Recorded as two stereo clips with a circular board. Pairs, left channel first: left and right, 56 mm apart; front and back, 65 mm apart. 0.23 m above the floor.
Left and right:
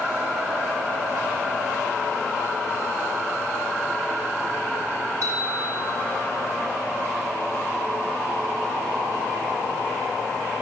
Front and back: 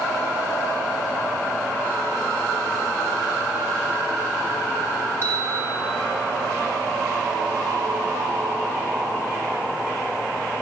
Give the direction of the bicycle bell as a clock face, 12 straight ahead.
2 o'clock.